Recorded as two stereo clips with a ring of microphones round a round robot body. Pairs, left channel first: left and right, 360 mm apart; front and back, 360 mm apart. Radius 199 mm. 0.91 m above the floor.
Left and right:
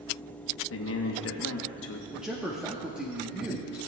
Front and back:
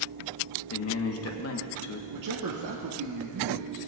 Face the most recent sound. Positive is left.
turn(degrees=-175)